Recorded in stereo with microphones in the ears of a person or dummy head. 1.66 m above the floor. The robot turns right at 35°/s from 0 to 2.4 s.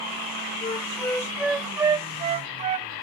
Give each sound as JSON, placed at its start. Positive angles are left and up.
{"t": 0.6, "sound": "a flute", "azimuth_deg": 150}